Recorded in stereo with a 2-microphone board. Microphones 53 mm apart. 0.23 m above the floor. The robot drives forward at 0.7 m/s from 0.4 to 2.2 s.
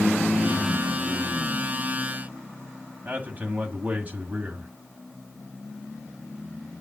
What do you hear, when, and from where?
3.0 s a man speaking: 30° right (ahead or behind), 1.2 m